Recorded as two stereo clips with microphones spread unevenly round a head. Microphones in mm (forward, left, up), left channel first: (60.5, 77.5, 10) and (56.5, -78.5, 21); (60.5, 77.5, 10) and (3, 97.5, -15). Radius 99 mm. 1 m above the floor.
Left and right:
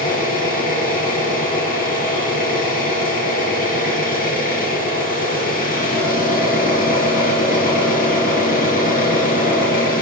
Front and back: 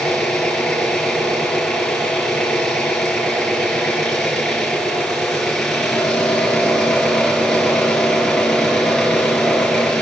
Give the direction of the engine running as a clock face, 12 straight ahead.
10 o'clock.